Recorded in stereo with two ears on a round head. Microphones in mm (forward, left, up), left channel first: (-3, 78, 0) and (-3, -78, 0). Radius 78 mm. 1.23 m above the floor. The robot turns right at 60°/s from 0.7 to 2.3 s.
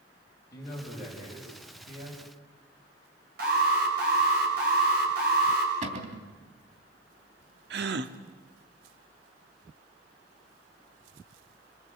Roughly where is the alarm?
Right.